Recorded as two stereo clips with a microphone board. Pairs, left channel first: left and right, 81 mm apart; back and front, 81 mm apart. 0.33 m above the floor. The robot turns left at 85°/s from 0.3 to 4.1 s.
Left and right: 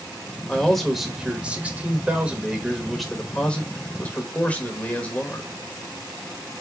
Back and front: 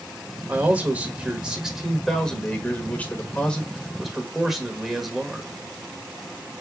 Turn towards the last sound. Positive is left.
turn(degrees=80)